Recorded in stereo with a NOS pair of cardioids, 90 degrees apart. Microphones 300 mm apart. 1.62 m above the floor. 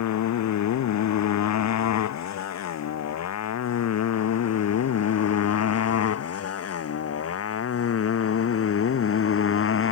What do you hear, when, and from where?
0.0 s a motorcycle: 65° left; by 9.9 s 45° left